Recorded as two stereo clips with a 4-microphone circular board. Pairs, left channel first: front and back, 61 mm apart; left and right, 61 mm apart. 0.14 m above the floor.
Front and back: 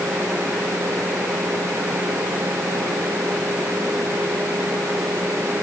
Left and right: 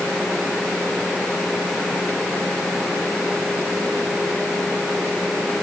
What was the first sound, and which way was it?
Only background noise.